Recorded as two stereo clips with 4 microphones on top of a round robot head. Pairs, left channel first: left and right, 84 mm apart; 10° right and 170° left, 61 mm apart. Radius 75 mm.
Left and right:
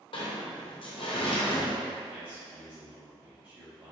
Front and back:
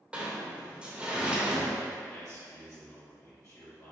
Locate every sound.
0.1 s a sliding door: 100° left, 0.9 m
2.1 s a man speaking: 25° right, 1.7 m